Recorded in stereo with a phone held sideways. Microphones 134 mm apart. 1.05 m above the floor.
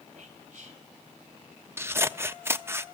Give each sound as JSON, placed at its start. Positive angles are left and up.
{"t": 0.2, "sound": "whispering", "side_deg": -50, "distance_m": 4.0}
{"t": 1.8, "sound": "scissors", "side_deg": -20, "distance_m": 0.6}